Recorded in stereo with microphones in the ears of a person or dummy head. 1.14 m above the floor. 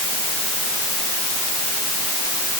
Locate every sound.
Only background noise.